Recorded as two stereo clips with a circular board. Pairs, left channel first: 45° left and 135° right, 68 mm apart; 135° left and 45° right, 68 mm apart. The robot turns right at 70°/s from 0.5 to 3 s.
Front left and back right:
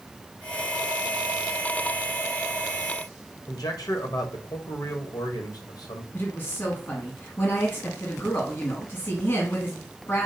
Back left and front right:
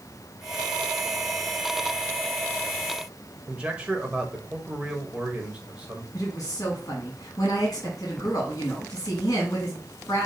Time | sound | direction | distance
3.5 | a man speaking | 30° left | 1.2 m
6.1 | a woman speaking | 90° left | 1.6 m